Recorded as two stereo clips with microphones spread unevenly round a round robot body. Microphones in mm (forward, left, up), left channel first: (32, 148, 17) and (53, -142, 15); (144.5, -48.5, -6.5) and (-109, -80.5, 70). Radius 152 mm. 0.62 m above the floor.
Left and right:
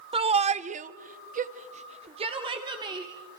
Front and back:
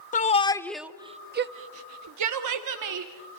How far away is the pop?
I don't hear a pop.